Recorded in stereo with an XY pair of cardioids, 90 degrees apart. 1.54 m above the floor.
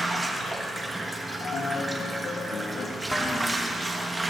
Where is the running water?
25° right, 1.8 m.